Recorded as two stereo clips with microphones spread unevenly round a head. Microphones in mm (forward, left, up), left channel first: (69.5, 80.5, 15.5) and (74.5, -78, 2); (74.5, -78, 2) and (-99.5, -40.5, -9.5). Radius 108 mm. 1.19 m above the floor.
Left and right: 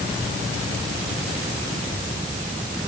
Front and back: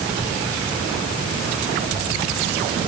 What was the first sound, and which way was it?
Only background noise.